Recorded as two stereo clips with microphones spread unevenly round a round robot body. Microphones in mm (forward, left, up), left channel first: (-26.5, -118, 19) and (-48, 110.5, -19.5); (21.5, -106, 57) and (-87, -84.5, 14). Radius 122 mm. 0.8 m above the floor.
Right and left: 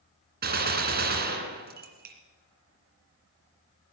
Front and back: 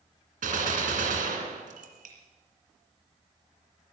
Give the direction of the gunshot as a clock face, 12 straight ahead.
7 o'clock.